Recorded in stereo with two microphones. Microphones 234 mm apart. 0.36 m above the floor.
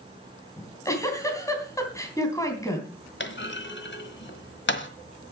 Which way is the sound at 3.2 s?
50° left (ahead or behind).